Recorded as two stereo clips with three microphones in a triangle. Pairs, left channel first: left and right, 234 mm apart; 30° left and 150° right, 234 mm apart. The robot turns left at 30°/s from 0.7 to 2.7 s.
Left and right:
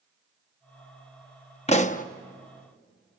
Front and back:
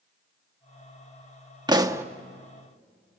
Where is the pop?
145° left, 0.8 m; by 2.0 s 135° left, 0.8 m.